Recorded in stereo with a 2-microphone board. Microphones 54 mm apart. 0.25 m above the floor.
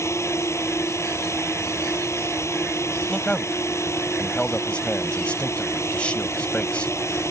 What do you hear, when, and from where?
0.0 s a drone: 60° left (ahead or behind)
3.1 s a man speaking: 20° left (ahead or behind)